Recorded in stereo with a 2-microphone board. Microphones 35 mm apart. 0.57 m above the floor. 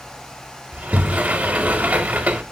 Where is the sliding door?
50° right (ahead or behind), 0.5 m.